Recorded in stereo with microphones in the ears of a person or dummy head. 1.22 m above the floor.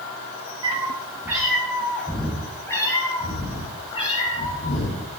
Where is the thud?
No thud in this recording.